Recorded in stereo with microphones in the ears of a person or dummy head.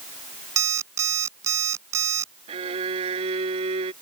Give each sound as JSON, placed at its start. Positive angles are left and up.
{"t": 0.6, "sound": "an alarm clock", "side_deg": -15}
{"t": 2.5, "sound": "a violin", "side_deg": -35}